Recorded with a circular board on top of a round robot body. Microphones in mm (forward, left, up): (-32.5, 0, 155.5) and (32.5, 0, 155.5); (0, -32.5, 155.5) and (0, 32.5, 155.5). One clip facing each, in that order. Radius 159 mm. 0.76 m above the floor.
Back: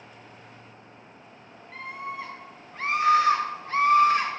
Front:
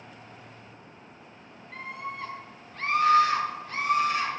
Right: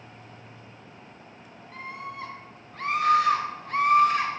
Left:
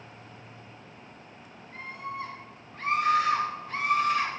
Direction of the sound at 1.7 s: 90° right.